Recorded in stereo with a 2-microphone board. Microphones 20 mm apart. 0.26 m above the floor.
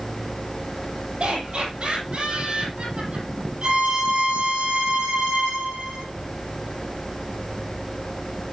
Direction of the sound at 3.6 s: 70° right (ahead or behind).